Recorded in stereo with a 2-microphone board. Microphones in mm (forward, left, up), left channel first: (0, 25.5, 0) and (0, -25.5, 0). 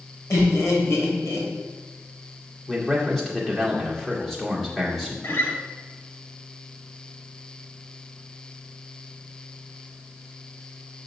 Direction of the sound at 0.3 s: 65° left (ahead or behind).